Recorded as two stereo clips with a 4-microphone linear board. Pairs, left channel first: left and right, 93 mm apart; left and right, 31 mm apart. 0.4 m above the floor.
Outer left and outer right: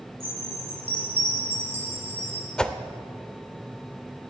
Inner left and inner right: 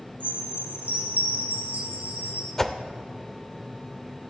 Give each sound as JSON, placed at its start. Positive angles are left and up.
{"t": 0.2, "sound": "a chime", "side_deg": -85, "distance_m": 4.5}
{"t": 2.6, "sound": "a whoosh", "side_deg": 10, "distance_m": 0.5}